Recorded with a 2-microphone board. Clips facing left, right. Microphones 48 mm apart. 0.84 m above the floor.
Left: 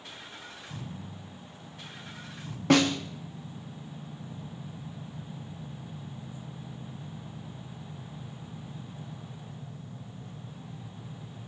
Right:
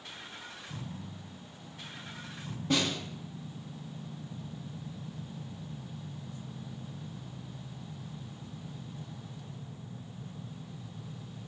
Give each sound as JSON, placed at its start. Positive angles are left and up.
{"t": 2.7, "sound": "a snare drum", "side_deg": 70, "distance_m": 1.0}